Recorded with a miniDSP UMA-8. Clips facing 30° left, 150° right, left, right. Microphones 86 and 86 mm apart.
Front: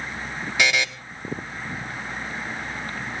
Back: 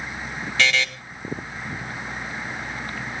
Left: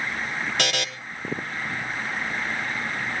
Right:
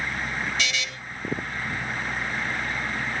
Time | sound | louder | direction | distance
0.6 | a buzzer | even, left 3 dB | 105° left | 1.0 m